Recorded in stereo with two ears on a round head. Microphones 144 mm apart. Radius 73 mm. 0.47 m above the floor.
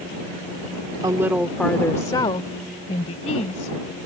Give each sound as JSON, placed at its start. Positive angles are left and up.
{"t": 1.0, "sound": "a woman speaking", "side_deg": -25}